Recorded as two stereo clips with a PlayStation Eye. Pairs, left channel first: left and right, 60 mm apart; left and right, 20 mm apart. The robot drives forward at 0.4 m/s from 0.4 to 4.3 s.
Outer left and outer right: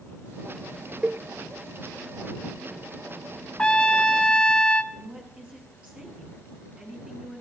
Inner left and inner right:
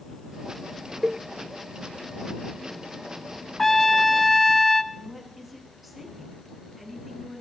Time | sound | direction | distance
1.0 | a cowbell | 30° right (ahead or behind) | 0.6 m
3.6 | a trumpet | 20° left (ahead or behind) | 1.6 m
4.9 | a woman speaking | 20° right (ahead or behind) | 8.5 m